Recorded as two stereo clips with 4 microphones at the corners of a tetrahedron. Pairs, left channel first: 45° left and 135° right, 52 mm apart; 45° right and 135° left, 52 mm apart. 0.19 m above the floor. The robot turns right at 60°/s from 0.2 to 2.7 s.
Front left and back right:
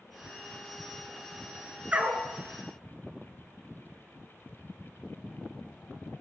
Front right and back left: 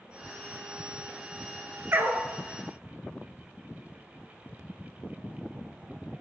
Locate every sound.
1.9 s a dog barking: 165° left, 1.2 m; by 2.3 s 175° right, 1.2 m